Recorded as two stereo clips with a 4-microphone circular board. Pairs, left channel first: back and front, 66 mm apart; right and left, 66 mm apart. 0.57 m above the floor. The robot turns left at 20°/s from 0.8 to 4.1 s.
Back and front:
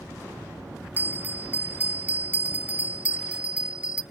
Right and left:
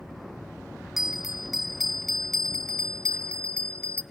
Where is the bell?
10° left, 0.6 m; by 4.0 s 50° right, 0.6 m.